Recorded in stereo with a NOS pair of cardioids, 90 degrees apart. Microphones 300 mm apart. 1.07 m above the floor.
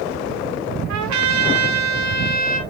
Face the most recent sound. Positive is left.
turn(degrees=-65)